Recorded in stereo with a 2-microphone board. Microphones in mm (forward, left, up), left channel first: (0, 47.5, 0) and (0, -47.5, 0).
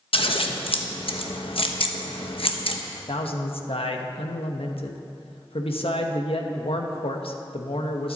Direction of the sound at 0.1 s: 75° left (ahead or behind).